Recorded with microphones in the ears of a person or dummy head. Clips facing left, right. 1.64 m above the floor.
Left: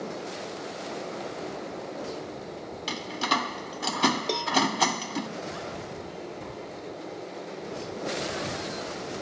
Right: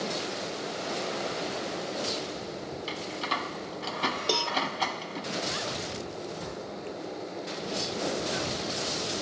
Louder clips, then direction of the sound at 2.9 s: Left 7 dB; 70° left (ahead or behind).